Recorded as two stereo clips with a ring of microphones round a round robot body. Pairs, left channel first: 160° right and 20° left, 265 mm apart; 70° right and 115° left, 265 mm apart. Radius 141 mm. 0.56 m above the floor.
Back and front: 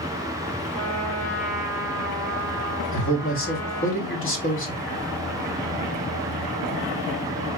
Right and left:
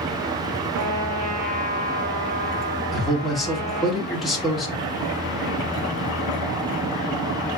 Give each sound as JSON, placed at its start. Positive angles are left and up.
{"t": 0.7, "sound": "a trumpet", "azimuth_deg": 175, "distance_m": 2.5}
{"t": 2.9, "sound": "a man speaking", "azimuth_deg": -160, "distance_m": 1.4}